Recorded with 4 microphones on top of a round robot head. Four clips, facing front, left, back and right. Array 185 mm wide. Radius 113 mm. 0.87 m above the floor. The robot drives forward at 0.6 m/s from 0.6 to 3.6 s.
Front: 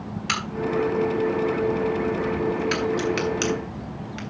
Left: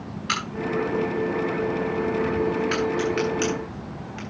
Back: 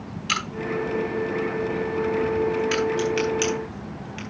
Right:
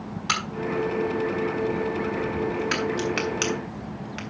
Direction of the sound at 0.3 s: 60° right.